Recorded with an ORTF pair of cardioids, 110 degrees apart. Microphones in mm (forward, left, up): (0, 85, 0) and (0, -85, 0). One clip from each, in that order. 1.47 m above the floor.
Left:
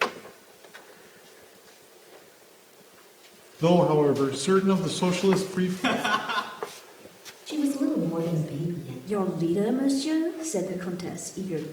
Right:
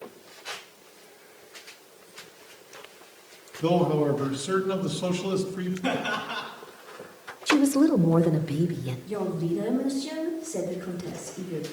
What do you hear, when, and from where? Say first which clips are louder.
3.6 s a man speaking: left 3 dB; 40° left, 1.4 m
5.8 s laughter: left 3 dB; 45° left, 3 m
7.5 s a woman speaking: right 6 dB; 55° right, 1.4 m
9.1 s a woman speaking: left 3 dB; 30° left, 1.7 m